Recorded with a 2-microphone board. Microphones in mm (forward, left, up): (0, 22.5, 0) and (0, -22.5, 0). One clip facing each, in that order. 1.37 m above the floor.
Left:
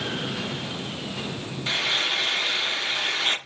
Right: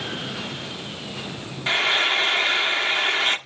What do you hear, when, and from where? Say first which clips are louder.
1.7 s frying: right 5 dB; 30° right (ahead or behind), 1.0 m